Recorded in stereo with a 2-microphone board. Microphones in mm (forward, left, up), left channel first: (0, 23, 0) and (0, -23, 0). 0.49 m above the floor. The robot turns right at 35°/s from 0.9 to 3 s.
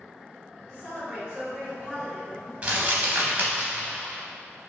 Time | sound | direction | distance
0.7 | a woman speaking | 30° right | 2.0 m
2.6 | crumpling | 25° right (ahead or behind) | 0.7 m